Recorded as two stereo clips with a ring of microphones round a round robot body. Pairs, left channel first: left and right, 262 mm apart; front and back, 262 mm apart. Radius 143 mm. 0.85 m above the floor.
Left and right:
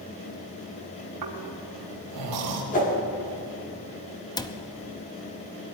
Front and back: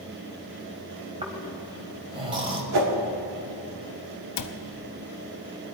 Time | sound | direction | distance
1.2 | snoring | 110° right | 2.5 m
2.7 | a whoosh | 155° left | 1.8 m
4.4 | a cupboard door | 15° left | 0.8 m